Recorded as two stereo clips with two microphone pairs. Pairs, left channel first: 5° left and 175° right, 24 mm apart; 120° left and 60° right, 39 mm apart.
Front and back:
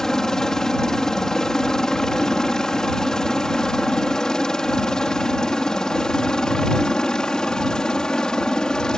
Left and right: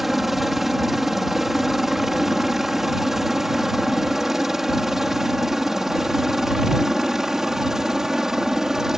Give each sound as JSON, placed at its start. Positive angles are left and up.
{"t": 0.0, "sound": "a helicopter", "azimuth_deg": 15}